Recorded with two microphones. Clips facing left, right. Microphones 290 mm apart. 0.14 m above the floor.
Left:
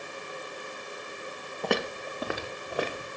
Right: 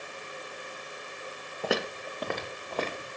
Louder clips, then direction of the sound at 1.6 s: Left 1 dB; 5° right (ahead or behind).